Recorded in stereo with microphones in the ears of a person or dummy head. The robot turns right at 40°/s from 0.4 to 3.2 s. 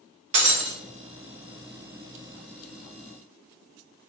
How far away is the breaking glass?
About 0.6 m.